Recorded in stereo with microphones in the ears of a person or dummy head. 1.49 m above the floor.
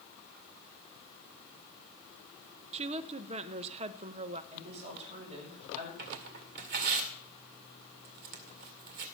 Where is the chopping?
No chopping in this recording.